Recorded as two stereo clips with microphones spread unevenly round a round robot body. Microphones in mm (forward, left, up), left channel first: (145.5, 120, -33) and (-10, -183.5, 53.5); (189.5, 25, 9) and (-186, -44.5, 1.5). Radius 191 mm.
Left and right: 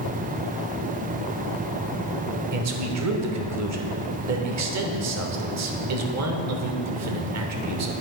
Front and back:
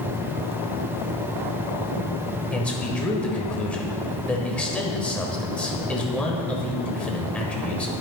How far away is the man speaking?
About 1.2 m.